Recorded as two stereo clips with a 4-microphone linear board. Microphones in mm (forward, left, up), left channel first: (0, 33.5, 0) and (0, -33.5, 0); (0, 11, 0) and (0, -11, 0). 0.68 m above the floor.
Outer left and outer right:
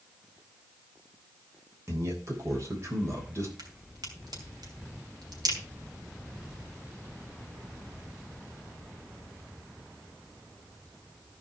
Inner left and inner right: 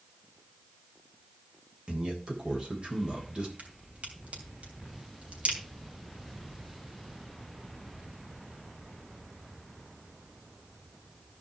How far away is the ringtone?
I don't hear a ringtone.